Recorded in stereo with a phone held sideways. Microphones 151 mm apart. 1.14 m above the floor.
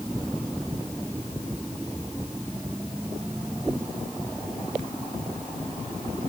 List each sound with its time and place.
Only background noise.